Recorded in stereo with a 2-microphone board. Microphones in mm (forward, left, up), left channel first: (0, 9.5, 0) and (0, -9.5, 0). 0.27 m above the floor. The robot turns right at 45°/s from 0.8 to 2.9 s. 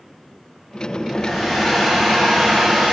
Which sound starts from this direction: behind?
A hair dryer, at 1.1 s.